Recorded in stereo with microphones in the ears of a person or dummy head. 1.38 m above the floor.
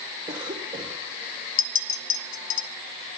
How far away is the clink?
About 0.6 m.